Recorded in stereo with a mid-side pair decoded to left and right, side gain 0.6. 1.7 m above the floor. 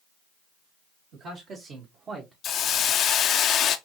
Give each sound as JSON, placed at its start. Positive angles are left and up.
{"t": 1.1, "sound": "a man speaking", "azimuth_deg": -55, "distance_m": 2.5}
{"t": 2.4, "sound": "a hiss", "azimuth_deg": 50, "distance_m": 0.5}